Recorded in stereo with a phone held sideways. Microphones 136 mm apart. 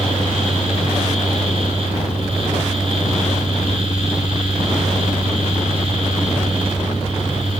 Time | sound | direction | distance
0.0 | a fan | 45° right (ahead or behind) | 5.5 m